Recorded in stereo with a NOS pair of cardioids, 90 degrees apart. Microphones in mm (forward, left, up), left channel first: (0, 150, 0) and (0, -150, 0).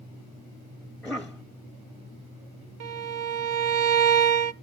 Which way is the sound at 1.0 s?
Straight ahead.